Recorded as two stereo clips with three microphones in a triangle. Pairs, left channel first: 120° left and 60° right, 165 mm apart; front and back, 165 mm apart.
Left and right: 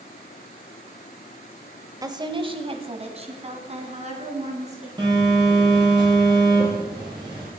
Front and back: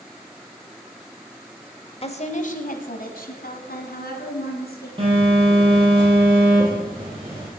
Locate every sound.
2.0 s a woman speaking: 10° right, 1.1 m; by 4.9 s 15° right, 4 m
5.0 s a phone buzzing: 120° right, 5.5 m